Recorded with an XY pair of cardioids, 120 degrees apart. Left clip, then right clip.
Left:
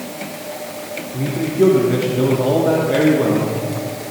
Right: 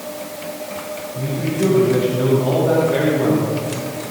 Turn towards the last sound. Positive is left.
turn(degrees=25)